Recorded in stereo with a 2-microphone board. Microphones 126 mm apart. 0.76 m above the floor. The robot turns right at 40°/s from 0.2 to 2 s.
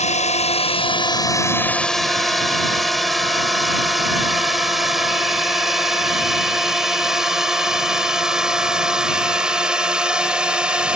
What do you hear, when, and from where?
0.0 s a drone: 65° left (ahead or behind); by 11.0 s 5° right (ahead or behind)